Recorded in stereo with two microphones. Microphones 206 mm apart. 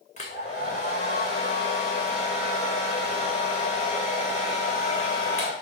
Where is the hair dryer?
35° left (ahead or behind), 2.5 m.